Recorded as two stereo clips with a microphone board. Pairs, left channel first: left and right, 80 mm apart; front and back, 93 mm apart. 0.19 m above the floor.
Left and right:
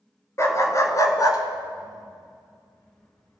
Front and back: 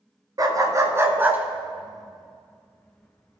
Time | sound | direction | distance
0.4 | a dog barking | 140° left | 1.2 m